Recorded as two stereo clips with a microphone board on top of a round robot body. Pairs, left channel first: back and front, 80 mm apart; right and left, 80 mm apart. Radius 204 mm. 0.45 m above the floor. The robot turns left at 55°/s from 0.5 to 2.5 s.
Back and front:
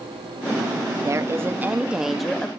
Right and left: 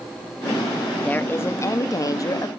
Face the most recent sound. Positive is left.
turn(degrees=-105)